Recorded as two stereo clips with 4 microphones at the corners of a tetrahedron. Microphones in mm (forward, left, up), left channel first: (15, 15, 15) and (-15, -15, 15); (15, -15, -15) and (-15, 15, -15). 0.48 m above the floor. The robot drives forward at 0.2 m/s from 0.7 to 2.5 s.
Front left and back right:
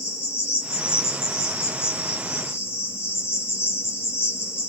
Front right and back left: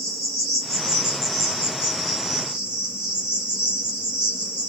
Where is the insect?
50° left, 1.4 m; by 4.7 s 60° left, 1.2 m.